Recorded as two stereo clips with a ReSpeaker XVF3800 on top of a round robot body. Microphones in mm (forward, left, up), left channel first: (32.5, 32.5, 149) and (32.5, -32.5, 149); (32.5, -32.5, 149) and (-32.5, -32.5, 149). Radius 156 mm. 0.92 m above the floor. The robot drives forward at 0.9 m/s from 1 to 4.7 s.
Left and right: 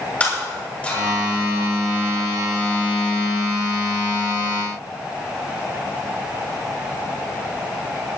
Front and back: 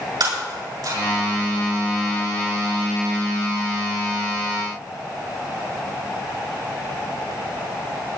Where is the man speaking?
I don't hear a man speaking.